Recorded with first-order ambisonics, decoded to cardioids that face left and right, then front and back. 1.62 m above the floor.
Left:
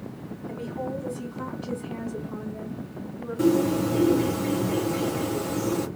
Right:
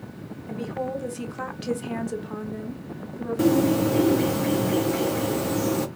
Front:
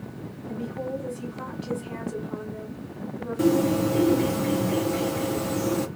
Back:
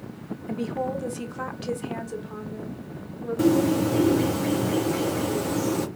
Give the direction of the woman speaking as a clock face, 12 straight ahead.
5 o'clock.